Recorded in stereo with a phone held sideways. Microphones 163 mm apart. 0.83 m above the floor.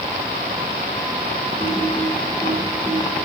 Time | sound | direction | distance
1.6 | typing on a keyboard | 15° right (ahead or behind) | 4 m